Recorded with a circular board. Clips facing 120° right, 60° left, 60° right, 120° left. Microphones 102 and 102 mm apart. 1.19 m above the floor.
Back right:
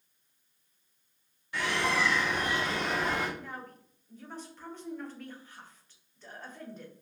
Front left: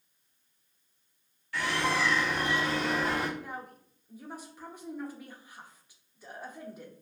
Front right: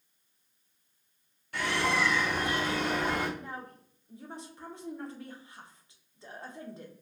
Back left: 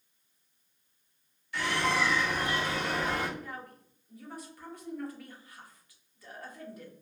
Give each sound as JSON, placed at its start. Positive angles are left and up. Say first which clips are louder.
{"t": 1.5, "sound": "a bird", "louder": "even, even", "azimuth_deg": -60, "distance_m": 1.3}
{"t": 3.4, "sound": "a woman speaking", "louder": "front left 2 dB, front right 1 dB", "azimuth_deg": -15, "distance_m": 0.6}